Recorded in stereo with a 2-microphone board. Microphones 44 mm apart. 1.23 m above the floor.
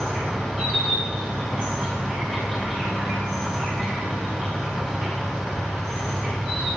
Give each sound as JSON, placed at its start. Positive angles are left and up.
{"t": 0.0, "sound": "an insect", "side_deg": 15, "distance_m": 2.5}